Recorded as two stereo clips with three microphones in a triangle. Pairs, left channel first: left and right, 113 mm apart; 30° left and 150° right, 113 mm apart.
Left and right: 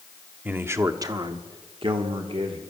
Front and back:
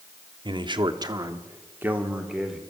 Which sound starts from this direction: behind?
A man speaking, at 0.5 s.